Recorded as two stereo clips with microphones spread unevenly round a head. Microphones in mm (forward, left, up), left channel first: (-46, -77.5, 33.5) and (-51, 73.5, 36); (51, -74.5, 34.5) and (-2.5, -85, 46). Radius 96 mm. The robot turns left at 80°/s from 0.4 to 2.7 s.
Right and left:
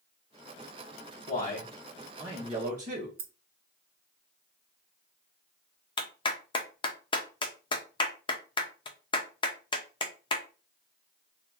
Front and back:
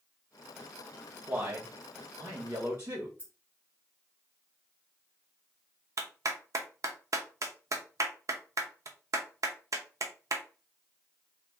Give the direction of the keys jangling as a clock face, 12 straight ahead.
8 o'clock.